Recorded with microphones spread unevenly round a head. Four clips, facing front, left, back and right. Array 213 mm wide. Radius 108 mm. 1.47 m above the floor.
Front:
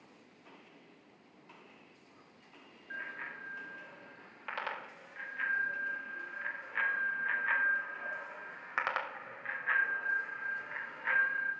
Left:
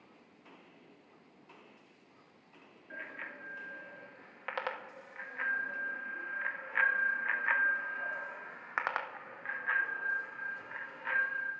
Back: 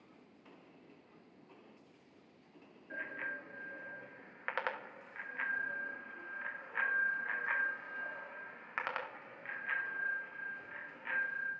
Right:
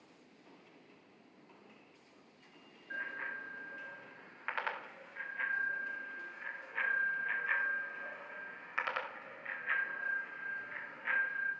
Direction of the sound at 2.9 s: 155° left.